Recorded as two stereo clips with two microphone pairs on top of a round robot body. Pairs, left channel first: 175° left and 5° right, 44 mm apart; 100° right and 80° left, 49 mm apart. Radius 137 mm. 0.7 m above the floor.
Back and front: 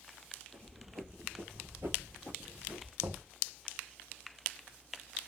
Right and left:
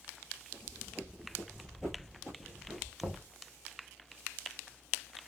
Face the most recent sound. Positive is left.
turn(degrees=5)